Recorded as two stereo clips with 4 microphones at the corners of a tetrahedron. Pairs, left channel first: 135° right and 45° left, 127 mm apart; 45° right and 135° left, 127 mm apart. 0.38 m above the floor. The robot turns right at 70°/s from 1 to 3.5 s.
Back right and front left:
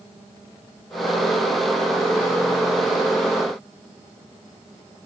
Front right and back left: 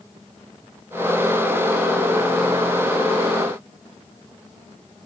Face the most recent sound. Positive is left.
No sound to turn to.